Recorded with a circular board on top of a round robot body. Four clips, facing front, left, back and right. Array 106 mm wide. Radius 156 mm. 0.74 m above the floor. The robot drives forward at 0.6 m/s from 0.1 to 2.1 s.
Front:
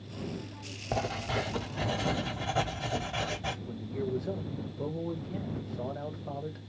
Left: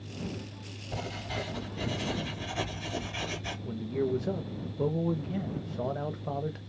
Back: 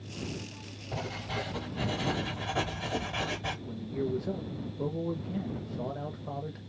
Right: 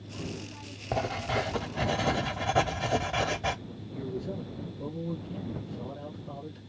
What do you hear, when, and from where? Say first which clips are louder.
0.9 s writing: right 7 dB, front 5 dB; 55° right, 1.2 m; by 3.5 s 90° right, 1.0 m
3.6 s a man speaking: left 8 dB, back 3 dB; 90° left, 0.8 m